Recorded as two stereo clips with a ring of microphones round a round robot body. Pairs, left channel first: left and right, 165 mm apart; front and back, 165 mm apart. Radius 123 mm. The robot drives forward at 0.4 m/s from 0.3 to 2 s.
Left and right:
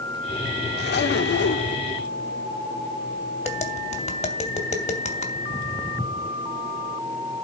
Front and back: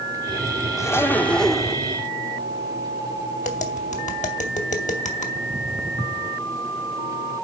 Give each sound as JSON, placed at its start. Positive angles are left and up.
{"t": 0.8, "sound": "a zipper", "azimuth_deg": 70, "distance_m": 1.1}
{"t": 3.4, "sound": "tapping", "azimuth_deg": 45, "distance_m": 2.5}
{"t": 5.3, "sound": "footsteps", "azimuth_deg": 140, "distance_m": 0.7}